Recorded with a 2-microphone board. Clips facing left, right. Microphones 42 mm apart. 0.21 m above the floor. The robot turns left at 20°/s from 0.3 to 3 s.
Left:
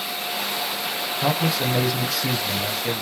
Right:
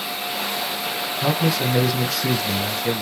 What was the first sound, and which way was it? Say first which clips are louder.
A man speaking: right 1 dB; 10° left (ahead or behind).